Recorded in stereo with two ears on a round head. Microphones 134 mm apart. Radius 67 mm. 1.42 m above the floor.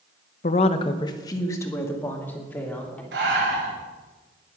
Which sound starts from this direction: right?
Breathing, at 3.1 s.